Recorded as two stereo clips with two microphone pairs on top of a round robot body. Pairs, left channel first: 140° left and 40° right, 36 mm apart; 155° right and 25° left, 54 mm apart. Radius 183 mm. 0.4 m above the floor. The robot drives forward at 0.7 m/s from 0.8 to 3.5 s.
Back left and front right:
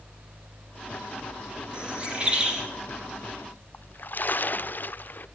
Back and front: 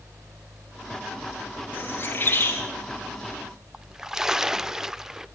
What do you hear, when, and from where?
1.7 s a bird: 95° right, 10 m; by 2.6 s 100° right, 10 m
3.7 s a splash: 105° left, 0.9 m